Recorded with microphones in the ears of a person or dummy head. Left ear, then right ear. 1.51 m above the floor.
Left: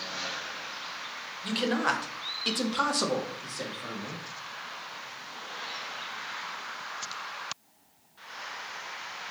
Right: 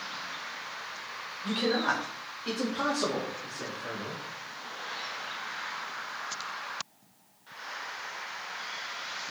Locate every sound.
1.4 s a man speaking: 20° left (ahead or behind), 0.8 m; by 4.2 s 65° left (ahead or behind), 1.4 m